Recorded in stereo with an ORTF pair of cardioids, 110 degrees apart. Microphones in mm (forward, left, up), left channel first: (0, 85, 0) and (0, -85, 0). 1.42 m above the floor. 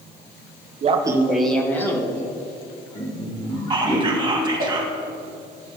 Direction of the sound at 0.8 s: 45° right.